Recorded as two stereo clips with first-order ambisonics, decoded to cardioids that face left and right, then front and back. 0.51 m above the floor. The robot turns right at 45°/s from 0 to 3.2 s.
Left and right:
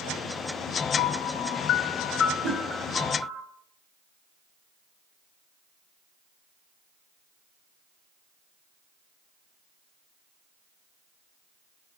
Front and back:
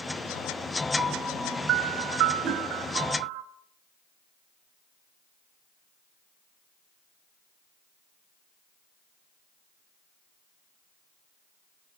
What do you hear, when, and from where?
1.0 s a piano: 100° left, 1.6 m; by 3.4 s 160° right, 1.6 m
2.4 s a whoosh: 125° right, 2.5 m; by 2.6 s 115° right, 2.5 m